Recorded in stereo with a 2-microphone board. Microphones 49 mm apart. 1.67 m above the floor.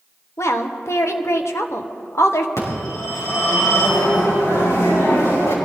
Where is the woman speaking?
70° left (ahead or behind), 1.3 m.